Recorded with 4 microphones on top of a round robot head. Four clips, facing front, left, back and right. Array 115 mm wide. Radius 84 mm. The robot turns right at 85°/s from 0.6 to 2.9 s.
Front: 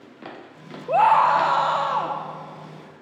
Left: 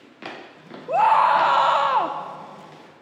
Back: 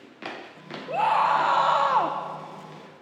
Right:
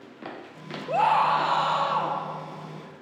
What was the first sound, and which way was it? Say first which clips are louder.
A scream: left 5 dB, front 5 dB; 25° left.